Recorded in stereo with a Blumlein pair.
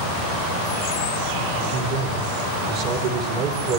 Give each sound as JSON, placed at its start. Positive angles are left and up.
{"t": 1.6, "sound": "a man speaking", "azimuth_deg": -50, "distance_m": 3.5}